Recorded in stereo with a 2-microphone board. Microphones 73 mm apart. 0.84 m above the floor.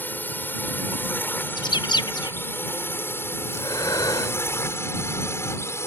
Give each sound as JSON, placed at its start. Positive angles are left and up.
{"t": 0.0, "sound": "a drone", "side_deg": 25}
{"t": 1.6, "sound": "a bird", "side_deg": 75}
{"t": 3.5, "sound": "breathing", "side_deg": 60}